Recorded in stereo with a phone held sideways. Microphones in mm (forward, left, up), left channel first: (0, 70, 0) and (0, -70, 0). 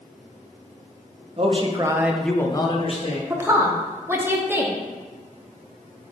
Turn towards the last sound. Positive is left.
turn(degrees=-15)  # may be behind; listen again after turning